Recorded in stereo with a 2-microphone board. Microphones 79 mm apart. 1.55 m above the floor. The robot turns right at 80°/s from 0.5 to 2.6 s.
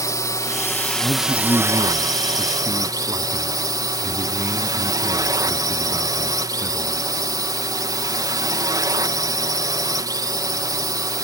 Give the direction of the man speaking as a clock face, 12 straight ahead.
9 o'clock.